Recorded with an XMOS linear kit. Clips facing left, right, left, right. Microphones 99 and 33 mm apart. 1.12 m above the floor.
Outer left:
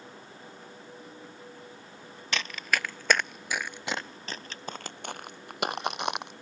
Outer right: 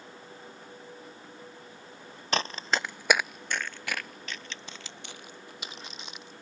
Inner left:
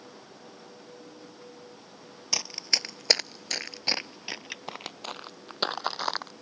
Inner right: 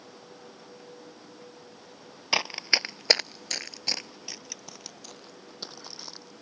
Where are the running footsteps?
35° right (ahead or behind); by 6.3 s 70° left (ahead or behind).